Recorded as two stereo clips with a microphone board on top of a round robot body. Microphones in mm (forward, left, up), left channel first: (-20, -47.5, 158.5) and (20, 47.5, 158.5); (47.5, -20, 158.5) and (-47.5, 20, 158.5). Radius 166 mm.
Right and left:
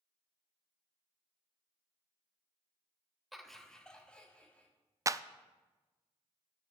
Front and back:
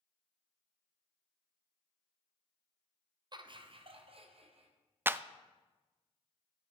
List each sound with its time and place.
3.3 s laughter: 155° left, 1.2 m; by 4.7 s 170° left, 2.5 m
5.1 s a clap: 100° left, 0.5 m